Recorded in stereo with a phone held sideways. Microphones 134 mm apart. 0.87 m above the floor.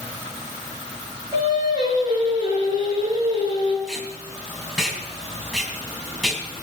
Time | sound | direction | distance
1.3 | singing | 30° right (ahead or behind) | 7 m
3.9 | tape being pulled | centre (ahead or behind) | 4.5 m